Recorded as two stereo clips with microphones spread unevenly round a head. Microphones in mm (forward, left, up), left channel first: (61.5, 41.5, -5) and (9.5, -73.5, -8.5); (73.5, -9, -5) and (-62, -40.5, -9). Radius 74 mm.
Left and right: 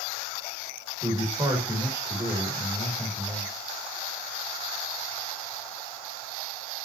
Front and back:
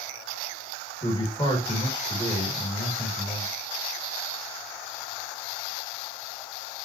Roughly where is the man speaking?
Ahead right.